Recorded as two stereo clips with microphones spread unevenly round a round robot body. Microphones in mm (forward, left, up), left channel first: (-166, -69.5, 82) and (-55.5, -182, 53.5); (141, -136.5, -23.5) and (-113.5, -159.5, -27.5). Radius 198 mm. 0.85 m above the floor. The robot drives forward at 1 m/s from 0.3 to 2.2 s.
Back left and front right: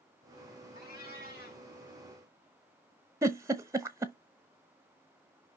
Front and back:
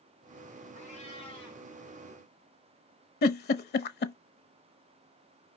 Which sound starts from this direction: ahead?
A giggle, at 3.2 s.